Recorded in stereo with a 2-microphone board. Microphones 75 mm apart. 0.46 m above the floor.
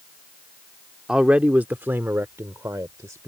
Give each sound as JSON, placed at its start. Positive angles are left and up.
{"t": 1.1, "sound": "a man speaking", "side_deg": -10}